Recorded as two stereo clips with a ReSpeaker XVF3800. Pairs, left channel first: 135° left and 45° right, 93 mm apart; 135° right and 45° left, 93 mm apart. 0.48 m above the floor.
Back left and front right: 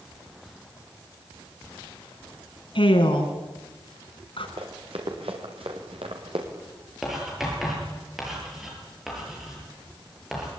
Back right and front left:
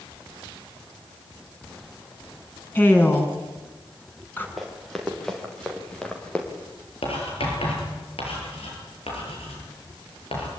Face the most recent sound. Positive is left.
turn(degrees=-130)